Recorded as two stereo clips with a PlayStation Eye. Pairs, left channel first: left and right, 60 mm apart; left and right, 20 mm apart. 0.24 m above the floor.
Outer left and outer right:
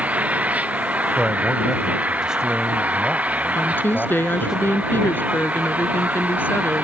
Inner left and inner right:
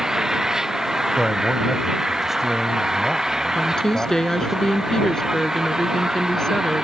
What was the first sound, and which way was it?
An engine running, 25° right (ahead or behind).